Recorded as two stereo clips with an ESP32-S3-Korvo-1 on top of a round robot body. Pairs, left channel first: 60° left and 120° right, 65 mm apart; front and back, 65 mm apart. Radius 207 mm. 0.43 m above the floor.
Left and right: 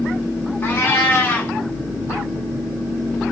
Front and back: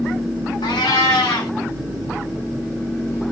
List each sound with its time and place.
0.6 s a cat meowing: straight ahead, 0.9 m